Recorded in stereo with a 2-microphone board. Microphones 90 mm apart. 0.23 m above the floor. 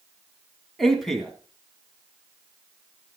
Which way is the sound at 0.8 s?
Centre (ahead or behind).